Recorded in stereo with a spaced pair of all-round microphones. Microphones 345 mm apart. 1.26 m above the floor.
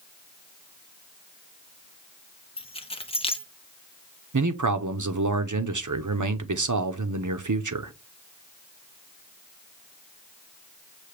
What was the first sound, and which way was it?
Keys jangling, 15° left (ahead or behind).